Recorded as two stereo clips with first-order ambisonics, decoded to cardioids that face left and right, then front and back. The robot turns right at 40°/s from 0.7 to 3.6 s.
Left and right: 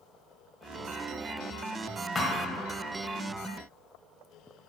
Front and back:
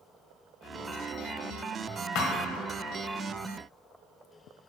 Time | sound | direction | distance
2.1 | a thud | 10° left | 1.0 m